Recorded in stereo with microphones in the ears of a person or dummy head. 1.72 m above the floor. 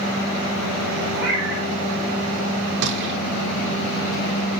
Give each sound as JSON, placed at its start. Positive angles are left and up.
{"t": 1.2, "sound": "a cat meowing", "side_deg": -10, "distance_m": 2.0}
{"t": 2.8, "sound": "a gunshot", "side_deg": -55, "distance_m": 0.9}